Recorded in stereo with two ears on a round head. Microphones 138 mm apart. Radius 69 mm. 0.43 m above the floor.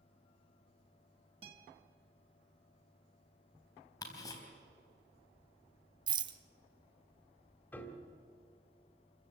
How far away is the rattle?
About 1.0 m.